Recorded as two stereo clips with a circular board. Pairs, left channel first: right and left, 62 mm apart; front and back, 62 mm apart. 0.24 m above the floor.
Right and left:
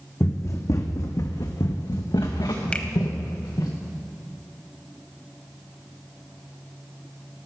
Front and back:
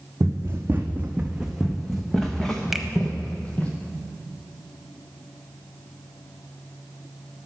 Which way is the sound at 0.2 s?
135° right.